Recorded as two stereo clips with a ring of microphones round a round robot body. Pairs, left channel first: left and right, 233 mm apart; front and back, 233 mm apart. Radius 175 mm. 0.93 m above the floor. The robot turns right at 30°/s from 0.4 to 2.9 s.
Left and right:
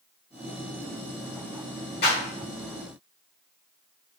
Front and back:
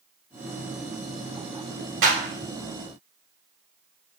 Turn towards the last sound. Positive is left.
turn(degrees=-175)